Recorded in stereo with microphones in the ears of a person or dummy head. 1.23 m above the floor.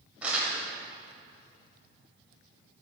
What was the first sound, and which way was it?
Crumpling, 10° right (ahead or behind).